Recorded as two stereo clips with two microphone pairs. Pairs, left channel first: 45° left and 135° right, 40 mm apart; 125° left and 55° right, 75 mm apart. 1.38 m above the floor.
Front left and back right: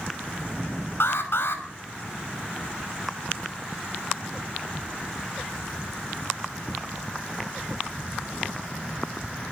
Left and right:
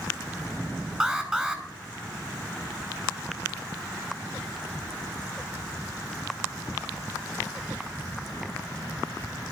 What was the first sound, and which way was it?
An alarm, 20° left.